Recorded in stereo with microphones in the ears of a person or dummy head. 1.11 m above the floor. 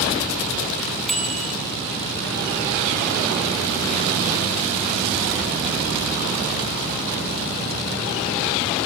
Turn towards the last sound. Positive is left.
turn(degrees=0)  # may be behind; listen again after turning